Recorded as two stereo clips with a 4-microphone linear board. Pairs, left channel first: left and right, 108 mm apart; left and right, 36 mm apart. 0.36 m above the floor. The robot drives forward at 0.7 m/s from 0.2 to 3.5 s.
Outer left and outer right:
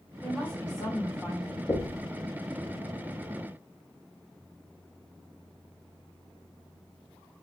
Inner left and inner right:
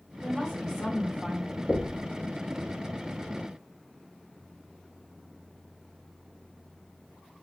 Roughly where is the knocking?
Left.